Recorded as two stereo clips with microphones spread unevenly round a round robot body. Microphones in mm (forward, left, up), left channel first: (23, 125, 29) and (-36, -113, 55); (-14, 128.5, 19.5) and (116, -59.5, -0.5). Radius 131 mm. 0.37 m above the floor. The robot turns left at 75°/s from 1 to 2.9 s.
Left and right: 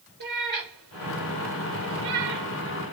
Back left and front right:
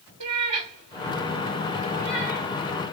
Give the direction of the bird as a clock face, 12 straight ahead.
No bird in this recording.